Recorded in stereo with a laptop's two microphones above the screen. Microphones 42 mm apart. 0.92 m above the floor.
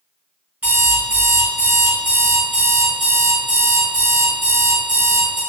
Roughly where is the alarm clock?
Right.